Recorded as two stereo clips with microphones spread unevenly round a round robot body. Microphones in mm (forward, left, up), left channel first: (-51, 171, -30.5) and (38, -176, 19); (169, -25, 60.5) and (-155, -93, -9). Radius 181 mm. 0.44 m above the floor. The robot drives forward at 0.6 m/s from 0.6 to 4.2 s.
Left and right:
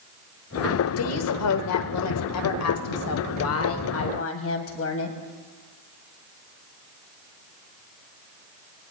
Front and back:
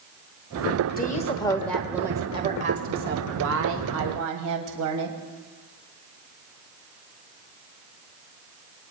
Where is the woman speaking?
80° left, 1.2 m; by 5.2 s 155° left, 2 m.